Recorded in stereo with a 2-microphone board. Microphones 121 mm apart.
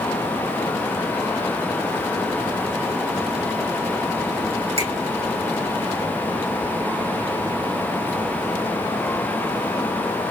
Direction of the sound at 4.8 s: 50° right (ahead or behind).